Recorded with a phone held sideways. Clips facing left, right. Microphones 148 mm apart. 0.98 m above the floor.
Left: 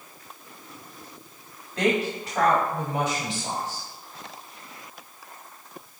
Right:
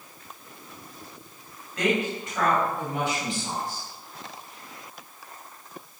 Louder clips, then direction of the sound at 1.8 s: Left 2 dB; 30° left (ahead or behind).